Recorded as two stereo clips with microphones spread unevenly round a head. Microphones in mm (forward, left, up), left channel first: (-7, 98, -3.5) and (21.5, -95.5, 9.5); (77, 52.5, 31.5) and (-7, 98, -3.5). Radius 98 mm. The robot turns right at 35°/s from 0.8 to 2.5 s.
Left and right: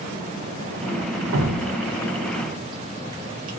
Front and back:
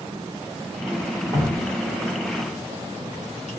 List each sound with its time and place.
1.3 s dripping: 120° right, 1.1 m; by 3.6 s 80° right, 1.1 m